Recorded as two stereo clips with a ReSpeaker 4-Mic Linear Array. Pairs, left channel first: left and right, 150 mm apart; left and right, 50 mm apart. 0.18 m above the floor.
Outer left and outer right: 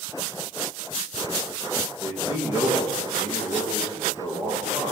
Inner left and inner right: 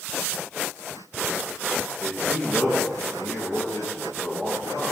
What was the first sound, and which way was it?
A man speaking, 40° left (ahead or behind).